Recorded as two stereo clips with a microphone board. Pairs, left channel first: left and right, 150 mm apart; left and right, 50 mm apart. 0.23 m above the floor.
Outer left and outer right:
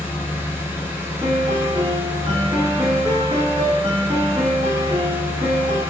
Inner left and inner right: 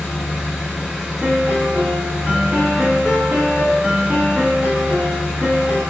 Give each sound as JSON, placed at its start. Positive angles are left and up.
{"t": 0.0, "sound": "an engine running", "side_deg": -15, "distance_m": 0.7}
{"t": 1.2, "sound": "a piano", "side_deg": -35, "distance_m": 1.8}